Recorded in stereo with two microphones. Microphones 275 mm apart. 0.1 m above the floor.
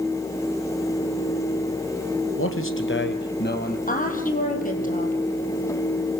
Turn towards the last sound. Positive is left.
turn(degrees=30)  # may be behind; listen again after turning